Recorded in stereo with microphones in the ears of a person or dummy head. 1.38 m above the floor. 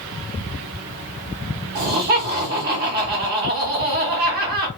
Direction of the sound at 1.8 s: 45° right (ahead or behind).